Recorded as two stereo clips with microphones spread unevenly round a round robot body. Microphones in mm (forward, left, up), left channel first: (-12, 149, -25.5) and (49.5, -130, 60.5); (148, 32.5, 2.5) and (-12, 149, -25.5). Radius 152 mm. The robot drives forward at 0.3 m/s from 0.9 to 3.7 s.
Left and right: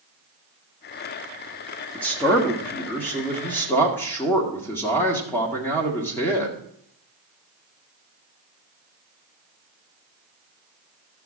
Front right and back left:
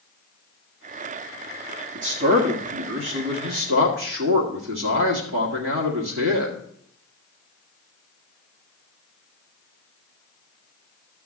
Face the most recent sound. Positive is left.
turn(degrees=180)